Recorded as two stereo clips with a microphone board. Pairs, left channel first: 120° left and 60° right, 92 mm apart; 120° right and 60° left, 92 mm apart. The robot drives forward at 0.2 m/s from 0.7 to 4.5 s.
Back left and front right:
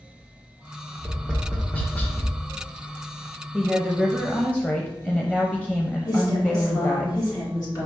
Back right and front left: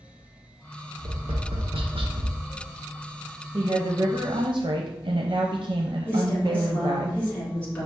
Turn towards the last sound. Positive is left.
turn(degrees=165)